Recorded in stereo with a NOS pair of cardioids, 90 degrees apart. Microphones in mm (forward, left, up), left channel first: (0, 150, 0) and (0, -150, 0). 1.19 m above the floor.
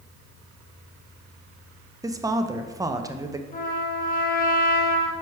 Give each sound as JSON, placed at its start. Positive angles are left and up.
{"t": 2.0, "sound": "a woman speaking", "azimuth_deg": -10, "distance_m": 0.6}
{"t": 3.5, "sound": "a trumpet", "azimuth_deg": 30, "distance_m": 1.0}